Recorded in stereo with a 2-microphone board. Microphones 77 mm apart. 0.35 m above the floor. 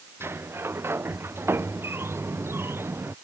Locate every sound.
0.2 s a sliding door: 30° right (ahead or behind)